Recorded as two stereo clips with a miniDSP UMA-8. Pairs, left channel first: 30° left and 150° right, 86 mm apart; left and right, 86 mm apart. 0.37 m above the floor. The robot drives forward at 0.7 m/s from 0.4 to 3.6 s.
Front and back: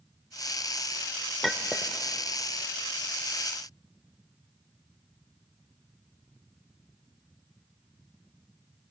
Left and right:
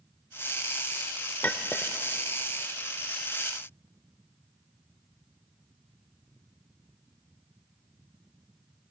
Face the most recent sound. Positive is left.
turn(degrees=175)